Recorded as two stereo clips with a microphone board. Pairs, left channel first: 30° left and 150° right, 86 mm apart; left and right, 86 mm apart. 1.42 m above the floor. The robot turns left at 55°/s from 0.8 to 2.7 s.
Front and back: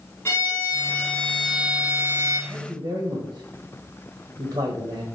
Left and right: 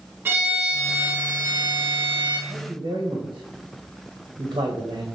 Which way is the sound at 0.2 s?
25° right.